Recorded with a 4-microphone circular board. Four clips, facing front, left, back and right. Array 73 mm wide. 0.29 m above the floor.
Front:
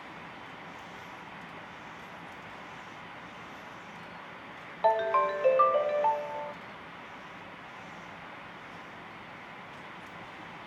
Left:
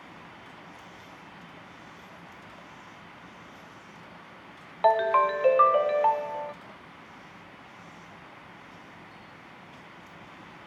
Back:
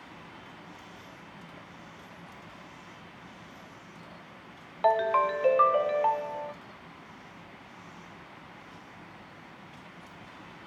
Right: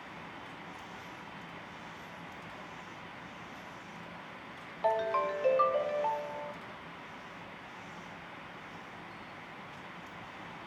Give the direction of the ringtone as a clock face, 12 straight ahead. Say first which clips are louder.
Left 8 dB, back 1 dB; 9 o'clock.